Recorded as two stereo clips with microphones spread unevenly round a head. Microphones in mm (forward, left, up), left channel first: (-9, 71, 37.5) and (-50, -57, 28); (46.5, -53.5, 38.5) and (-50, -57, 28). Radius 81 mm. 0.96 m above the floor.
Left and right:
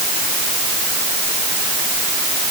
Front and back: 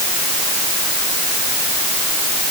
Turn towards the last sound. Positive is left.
No sound to turn to.